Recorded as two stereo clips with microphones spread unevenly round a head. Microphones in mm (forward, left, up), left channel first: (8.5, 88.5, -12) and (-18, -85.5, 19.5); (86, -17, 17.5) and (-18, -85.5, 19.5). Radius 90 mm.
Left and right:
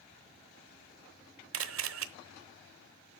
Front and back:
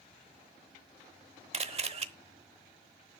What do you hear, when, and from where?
1.5 s a camera shutter: 105° right, 0.9 m